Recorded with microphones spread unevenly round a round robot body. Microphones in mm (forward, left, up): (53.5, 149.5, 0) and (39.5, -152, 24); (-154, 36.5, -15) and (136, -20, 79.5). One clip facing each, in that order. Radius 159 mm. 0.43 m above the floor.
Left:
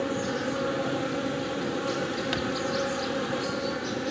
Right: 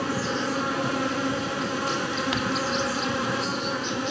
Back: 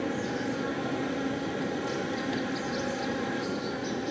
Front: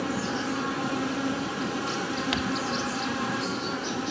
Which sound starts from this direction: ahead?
Crumpling, at 2.3 s.